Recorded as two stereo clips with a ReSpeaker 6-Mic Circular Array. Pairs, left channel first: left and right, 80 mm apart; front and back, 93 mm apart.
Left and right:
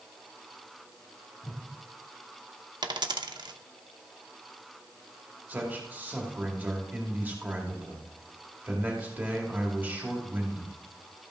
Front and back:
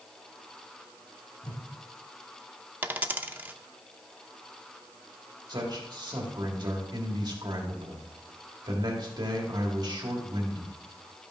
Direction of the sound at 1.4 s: 35° left.